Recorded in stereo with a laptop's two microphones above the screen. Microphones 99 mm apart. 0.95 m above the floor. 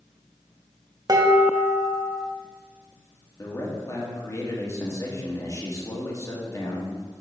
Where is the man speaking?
35° left (ahead or behind), 1.6 m.